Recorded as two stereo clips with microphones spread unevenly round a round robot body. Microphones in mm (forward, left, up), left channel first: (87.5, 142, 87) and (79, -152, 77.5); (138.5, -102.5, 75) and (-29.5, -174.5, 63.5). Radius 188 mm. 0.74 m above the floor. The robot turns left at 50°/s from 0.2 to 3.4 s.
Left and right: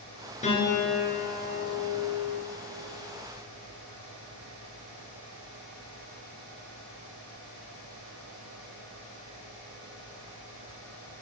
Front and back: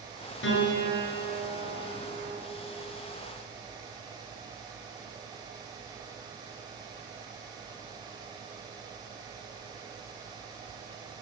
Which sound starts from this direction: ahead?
A piano, at 0.4 s.